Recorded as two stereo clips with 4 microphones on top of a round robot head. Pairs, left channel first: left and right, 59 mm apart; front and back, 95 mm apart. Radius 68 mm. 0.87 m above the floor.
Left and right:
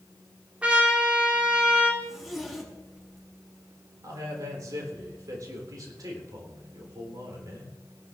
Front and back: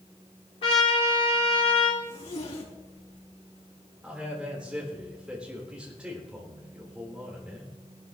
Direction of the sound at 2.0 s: 5° right.